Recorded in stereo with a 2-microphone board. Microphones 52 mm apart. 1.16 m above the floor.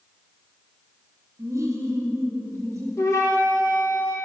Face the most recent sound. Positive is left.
turn(degrees=75)  # may be behind; listen again after turning